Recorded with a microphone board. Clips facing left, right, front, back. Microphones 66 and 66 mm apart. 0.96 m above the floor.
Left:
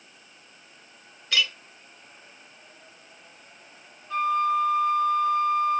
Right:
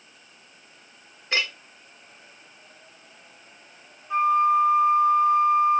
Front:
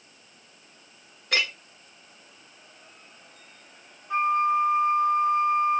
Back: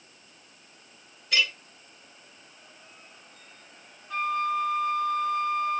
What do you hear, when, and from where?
1.3 s a clink: 30° right, 1.3 m
4.1 s a flute: 40° right, 0.8 m